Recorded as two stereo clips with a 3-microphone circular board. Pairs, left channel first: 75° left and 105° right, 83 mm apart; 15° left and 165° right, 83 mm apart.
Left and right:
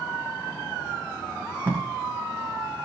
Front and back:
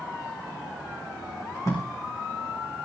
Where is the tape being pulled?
30° right, 5 m.